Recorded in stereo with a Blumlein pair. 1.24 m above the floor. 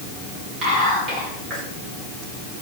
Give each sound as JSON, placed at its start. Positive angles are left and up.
{"t": 0.6, "sound": "whispering", "azimuth_deg": -30, "distance_m": 1.1}